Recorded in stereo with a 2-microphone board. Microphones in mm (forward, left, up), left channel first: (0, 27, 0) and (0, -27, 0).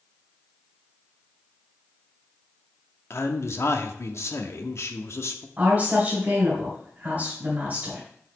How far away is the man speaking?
About 0.9 m.